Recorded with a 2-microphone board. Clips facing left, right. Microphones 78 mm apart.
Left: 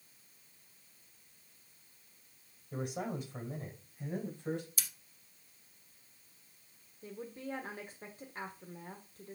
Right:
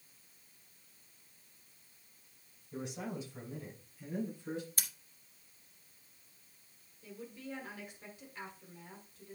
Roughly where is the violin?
No violin in this recording.